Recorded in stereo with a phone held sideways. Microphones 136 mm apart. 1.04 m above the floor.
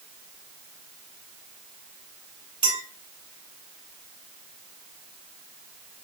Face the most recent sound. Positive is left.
turn(degrees=-40)  # may be behind; listen again after turning